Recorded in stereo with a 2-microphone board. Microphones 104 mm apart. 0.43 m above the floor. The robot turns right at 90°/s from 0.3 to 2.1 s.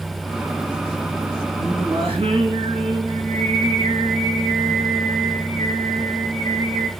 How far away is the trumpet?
No trumpet in this recording.